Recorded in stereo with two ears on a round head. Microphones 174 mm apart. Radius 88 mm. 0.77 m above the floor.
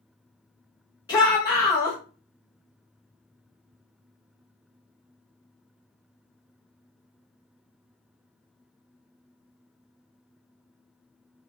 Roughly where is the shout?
Left.